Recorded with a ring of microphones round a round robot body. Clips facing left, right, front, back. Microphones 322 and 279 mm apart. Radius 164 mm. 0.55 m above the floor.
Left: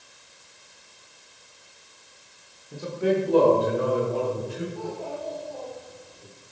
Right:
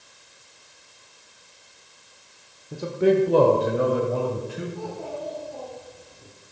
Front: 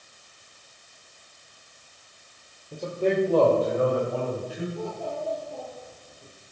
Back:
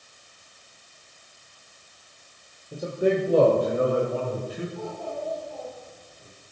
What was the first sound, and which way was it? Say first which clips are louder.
A man speaking: right 5 dB, back 1 dB; 95° right.